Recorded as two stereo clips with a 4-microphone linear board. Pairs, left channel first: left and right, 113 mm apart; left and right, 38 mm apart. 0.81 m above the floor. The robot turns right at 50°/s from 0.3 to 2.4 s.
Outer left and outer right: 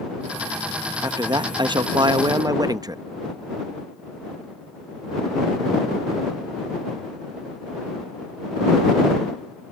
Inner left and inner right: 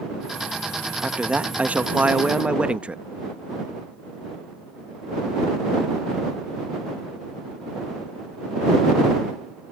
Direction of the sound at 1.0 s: 125° right.